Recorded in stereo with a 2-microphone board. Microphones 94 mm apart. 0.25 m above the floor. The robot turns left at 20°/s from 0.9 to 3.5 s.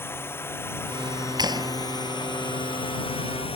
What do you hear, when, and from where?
0.0 s a drone: 155° left; by 3.6 s 105° left
1.4 s a clap: 45° right (ahead or behind); by 1.7 s 55° right (ahead or behind)